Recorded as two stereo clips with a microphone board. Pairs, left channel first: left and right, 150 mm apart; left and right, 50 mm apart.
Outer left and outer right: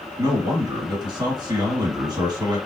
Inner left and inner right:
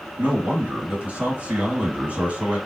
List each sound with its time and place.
0.2 s a man speaking: 30° right (ahead or behind), 1.8 m